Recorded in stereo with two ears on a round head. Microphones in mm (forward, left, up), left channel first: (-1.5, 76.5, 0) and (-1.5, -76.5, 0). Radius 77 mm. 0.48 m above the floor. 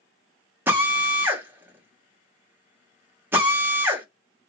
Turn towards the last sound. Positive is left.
turn(degrees=-15)  # may be behind; listen again after turning